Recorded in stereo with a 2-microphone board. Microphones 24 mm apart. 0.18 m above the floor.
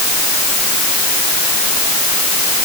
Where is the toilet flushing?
No toilet flushing in this recording.